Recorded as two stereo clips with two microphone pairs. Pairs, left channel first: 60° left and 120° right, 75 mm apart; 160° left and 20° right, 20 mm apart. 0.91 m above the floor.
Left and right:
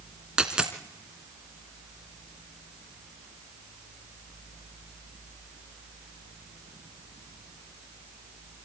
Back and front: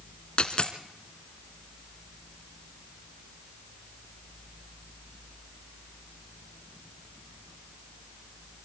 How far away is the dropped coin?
About 1.9 m.